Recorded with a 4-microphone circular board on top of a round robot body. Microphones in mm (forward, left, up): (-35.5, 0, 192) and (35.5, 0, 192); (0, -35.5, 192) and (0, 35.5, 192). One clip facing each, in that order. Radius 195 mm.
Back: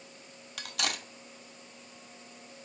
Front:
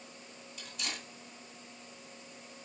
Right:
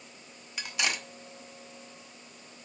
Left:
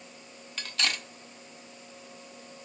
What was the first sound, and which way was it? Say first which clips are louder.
Cutlery clinking: back 7 dB, right 1 dB; 165° right.